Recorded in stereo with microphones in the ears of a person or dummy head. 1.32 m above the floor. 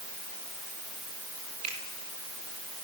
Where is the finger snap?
40° right (ahead or behind), 4.5 m.